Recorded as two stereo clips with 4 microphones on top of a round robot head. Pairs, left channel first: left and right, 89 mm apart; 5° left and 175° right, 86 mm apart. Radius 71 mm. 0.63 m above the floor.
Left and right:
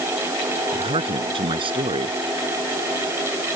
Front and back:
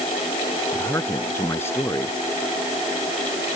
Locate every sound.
0.7 s a man speaking: 65° right